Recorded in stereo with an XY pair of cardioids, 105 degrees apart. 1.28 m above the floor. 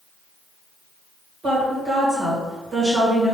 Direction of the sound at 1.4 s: 65° right.